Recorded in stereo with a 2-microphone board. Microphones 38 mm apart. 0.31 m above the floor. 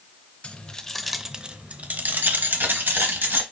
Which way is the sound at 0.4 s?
35° left (ahead or behind).